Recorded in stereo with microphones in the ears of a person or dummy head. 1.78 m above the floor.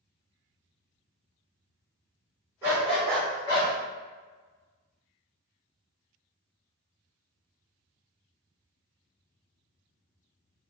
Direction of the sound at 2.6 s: 10° right (ahead or behind).